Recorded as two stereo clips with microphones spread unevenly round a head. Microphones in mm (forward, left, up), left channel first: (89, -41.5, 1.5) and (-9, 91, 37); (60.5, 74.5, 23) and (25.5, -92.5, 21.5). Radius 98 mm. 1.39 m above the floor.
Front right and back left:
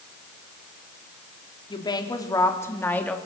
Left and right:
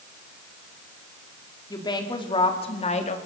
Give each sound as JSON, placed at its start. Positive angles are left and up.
{"t": 1.7, "sound": "a woman speaking", "azimuth_deg": 10, "distance_m": 3.5}